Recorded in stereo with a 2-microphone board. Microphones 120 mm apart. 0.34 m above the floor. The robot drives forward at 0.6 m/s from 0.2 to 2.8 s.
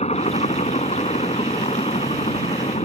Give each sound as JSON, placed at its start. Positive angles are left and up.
{"t": 0.0, "sound": "a helicopter", "side_deg": 65}